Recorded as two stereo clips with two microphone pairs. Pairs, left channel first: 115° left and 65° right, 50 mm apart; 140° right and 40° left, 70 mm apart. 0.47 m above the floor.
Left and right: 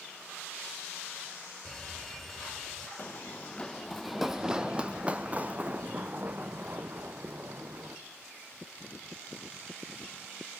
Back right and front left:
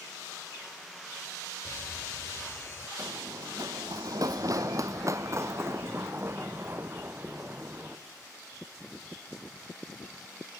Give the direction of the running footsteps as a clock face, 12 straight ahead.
10 o'clock.